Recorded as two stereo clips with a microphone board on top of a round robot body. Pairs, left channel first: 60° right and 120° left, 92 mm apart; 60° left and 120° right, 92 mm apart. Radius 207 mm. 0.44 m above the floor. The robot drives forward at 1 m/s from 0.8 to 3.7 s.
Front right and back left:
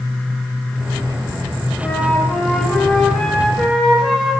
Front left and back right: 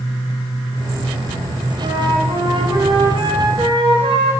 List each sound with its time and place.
1.8 s a flute: 135° right, 3.5 m; by 4.3 s 150° right, 5 m